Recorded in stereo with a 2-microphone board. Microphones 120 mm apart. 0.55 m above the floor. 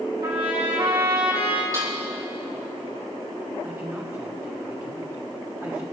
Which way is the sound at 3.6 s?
20° right (ahead or behind).